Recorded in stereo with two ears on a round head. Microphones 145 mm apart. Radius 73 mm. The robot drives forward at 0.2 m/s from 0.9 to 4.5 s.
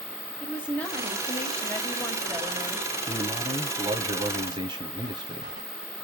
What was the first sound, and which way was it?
A woman speaking, 10° left (ahead or behind).